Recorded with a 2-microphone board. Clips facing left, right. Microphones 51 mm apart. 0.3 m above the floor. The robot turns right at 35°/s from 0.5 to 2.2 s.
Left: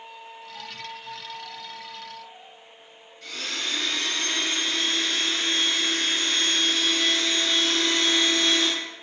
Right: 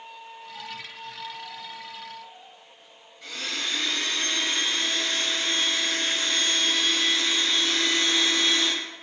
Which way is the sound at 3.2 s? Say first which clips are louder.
Even; 15° right (ahead or behind).